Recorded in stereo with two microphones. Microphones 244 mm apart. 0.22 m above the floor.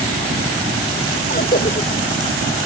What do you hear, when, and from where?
1.3 s a cough: 40° left (ahead or behind)